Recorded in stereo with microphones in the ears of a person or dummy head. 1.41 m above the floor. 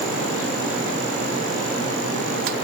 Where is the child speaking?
No child speaking in this recording.